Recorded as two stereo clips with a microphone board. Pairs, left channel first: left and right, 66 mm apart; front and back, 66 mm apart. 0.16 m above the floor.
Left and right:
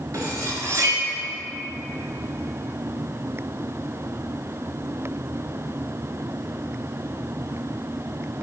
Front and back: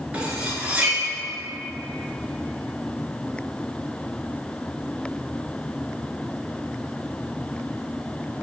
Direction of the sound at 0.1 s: 110° right.